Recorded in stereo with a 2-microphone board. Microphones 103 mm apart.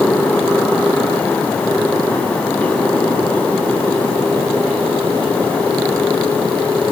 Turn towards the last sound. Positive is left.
No sound to turn to.